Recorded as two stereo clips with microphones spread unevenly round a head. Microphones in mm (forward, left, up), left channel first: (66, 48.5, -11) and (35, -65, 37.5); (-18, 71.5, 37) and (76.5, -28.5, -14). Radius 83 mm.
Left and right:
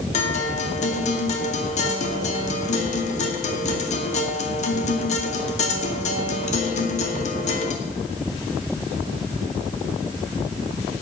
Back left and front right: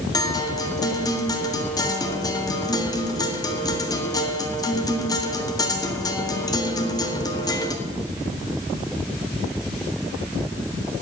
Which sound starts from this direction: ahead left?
A guitar, at 0.1 s.